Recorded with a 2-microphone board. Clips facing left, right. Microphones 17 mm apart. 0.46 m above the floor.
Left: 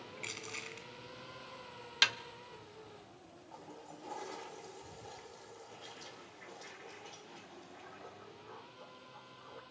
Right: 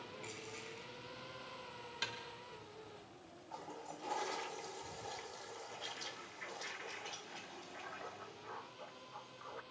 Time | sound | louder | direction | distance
0.2 | crushing | left 9 dB | 45° left (ahead or behind) | 2 m
2.0 | a snare drum | left 13 dB | 75° left (ahead or behind) | 0.5 m
3.5 | a toilet flushing | right 3 dB | 30° right (ahead or behind) | 0.6 m